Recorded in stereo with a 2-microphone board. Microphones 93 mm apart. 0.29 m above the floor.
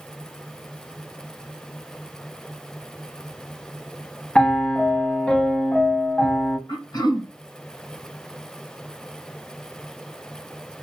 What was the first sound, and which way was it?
A piano, 10° left (ahead or behind).